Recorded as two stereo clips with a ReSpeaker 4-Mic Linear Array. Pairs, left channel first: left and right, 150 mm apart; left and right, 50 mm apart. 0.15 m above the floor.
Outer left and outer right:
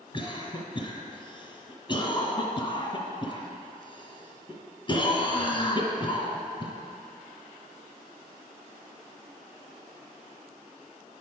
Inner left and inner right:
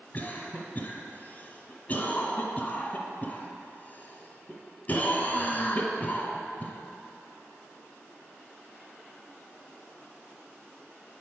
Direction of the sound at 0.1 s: 35° left (ahead or behind).